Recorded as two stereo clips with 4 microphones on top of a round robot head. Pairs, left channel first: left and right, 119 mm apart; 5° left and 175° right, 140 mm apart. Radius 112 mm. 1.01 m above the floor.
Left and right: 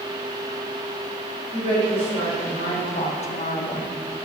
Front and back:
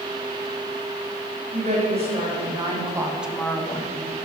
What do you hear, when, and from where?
1.5 s a woman speaking: 145° left, 3.5 m; by 4.0 s 35° left, 1.4 m